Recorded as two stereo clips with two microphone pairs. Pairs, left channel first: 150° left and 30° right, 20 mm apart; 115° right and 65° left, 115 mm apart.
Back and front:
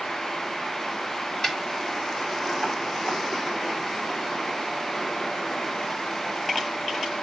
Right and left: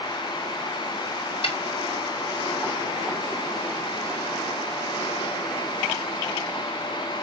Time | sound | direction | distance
1.4 | a snare drum | 140° right | 1.7 m